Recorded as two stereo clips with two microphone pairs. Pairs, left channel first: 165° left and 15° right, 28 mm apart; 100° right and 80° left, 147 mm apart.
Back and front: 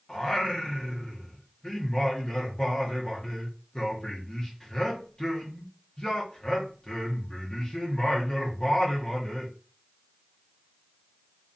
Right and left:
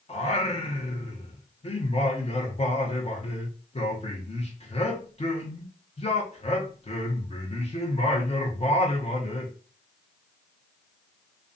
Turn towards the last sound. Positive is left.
turn(degrees=-135)